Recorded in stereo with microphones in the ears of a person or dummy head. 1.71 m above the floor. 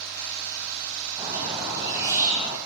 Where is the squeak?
20° right (ahead or behind), 6.5 m.